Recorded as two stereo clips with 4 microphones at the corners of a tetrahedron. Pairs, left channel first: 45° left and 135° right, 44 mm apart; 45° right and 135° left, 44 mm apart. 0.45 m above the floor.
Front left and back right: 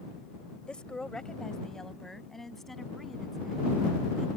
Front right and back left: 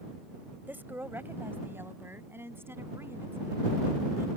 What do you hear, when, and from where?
0.7 s a woman speaking: 110° left; by 4.3 s 135° left